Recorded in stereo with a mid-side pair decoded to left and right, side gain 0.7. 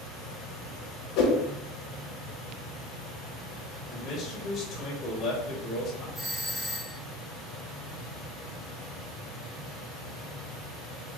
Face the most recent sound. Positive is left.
turn(degrees=-5)